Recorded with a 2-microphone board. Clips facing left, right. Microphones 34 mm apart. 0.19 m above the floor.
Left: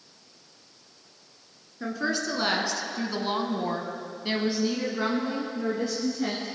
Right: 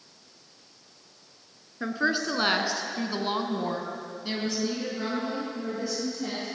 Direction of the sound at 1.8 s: 25° right (ahead or behind).